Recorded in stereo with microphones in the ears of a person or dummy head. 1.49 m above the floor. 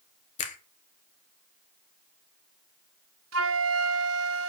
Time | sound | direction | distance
0.4 | a finger snap | 40° left (ahead or behind) | 1.2 m
3.3 | a flute | 75° right (ahead or behind) | 1.0 m